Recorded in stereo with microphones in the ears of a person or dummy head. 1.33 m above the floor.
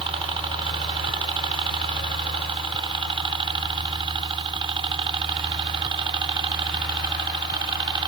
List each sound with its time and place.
0.0 s a helicopter: 25° right (ahead or behind)